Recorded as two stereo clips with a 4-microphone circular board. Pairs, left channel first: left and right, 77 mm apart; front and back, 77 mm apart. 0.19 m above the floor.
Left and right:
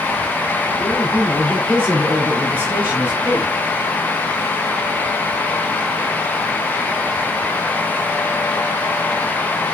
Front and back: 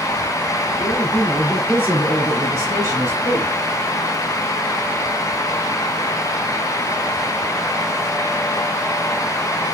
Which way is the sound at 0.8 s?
120° right.